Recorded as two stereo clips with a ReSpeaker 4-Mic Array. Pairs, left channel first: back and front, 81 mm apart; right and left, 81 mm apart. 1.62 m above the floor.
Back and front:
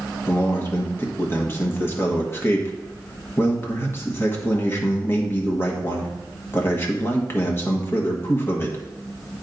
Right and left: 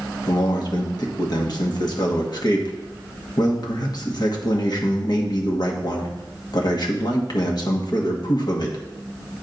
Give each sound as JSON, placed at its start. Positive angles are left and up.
{"t": 0.3, "sound": "a man speaking", "azimuth_deg": -120, "distance_m": 1.4}